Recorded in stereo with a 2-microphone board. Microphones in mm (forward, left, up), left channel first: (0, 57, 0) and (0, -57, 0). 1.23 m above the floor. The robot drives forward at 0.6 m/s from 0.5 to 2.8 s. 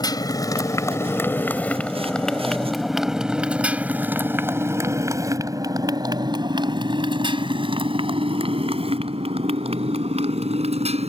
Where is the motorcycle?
35° left (ahead or behind); by 11.1 s 65° right (ahead or behind).